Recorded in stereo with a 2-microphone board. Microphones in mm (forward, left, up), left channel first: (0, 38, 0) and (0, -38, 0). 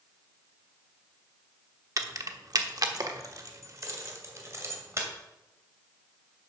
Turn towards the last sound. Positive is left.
turn(degrees=-35)  # may be behind; listen again after turning